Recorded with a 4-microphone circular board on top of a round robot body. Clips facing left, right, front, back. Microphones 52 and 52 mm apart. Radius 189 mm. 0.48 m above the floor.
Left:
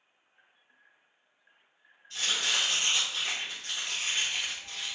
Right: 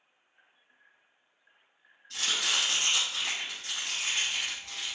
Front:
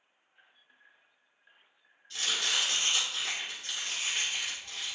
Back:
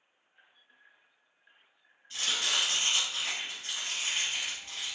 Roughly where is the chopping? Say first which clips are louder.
Even, even; right.